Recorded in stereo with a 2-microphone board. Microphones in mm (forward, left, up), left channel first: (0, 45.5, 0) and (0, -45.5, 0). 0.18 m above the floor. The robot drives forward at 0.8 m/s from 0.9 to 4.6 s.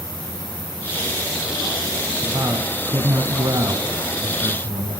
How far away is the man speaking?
About 1.9 m.